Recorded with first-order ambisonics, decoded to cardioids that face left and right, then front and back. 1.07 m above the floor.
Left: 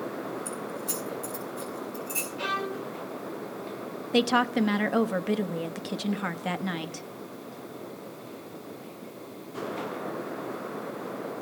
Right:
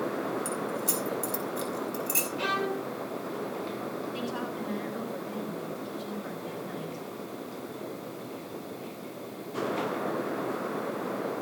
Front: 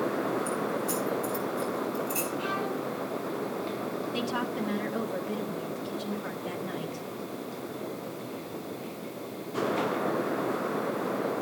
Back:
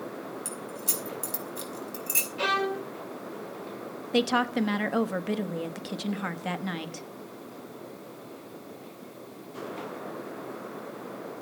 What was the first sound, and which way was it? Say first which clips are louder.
Keys jangling: right 3 dB, front 6 dB; 145° right.